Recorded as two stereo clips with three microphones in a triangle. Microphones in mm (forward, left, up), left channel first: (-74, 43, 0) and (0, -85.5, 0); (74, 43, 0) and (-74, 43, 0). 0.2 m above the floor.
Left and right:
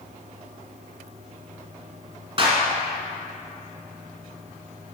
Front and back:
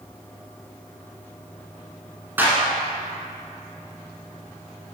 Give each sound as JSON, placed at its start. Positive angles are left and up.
{"t": 2.4, "sound": "a clap", "azimuth_deg": -105, "distance_m": 1.6}